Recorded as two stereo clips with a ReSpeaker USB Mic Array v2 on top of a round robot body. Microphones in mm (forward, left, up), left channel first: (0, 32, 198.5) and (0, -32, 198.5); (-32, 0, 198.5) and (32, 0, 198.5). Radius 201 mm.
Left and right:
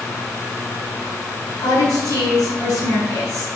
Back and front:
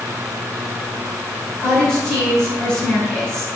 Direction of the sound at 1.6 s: 100° left.